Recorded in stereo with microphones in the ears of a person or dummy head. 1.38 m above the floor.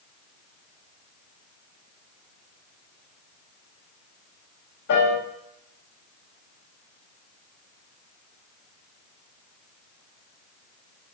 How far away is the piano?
About 5 m.